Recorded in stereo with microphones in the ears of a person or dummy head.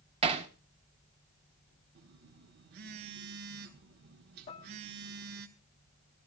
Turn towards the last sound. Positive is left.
turn(degrees=25)  # may be behind; listen again after turning